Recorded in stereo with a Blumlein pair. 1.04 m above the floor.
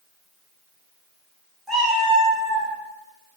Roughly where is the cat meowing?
Ahead.